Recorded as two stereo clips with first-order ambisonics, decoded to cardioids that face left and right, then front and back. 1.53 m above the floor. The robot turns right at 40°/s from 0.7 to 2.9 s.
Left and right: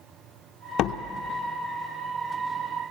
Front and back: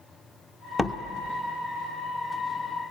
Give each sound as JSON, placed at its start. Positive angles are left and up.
{"t": 0.8, "sound": "a door slam", "azimuth_deg": 80, "distance_m": 0.8}